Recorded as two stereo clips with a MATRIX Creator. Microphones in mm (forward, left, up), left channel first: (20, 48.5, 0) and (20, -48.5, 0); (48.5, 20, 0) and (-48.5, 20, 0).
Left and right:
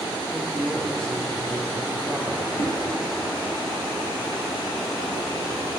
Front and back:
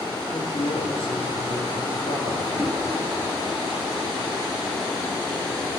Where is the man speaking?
10° left, 8.5 m.